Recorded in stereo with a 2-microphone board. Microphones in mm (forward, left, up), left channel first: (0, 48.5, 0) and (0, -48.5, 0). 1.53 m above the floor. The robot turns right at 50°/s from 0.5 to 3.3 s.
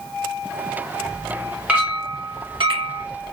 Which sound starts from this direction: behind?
A clink, at 1.7 s.